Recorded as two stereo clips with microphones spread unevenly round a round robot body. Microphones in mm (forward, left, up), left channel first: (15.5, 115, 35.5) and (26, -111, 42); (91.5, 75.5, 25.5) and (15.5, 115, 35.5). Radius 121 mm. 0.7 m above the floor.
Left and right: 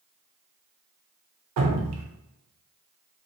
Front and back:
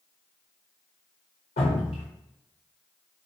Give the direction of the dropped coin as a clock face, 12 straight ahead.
I don't hear a dropped coin.